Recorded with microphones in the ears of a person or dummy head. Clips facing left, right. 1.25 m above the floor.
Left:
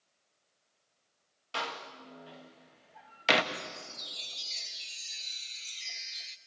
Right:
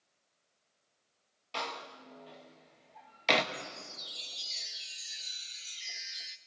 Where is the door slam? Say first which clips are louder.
Left 1 dB; 10° left (ahead or behind), 1.2 m.